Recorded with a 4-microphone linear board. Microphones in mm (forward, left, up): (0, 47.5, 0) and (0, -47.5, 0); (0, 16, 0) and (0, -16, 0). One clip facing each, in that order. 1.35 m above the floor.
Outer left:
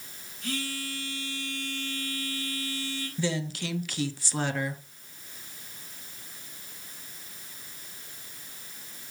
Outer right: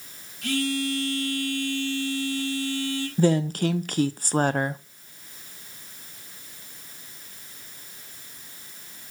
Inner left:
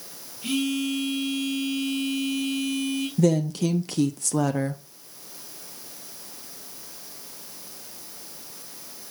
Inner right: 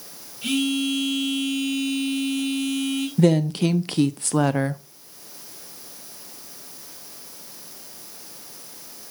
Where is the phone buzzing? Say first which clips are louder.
Outer right 9 dB, inner right 3 dB; 70° right (ahead or behind), 4.5 m.